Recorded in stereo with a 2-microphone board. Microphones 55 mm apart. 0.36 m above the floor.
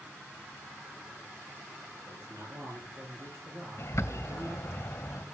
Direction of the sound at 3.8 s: 55° left (ahead or behind).